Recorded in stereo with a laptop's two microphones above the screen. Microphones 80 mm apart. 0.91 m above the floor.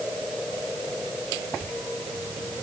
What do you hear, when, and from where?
Only background noise.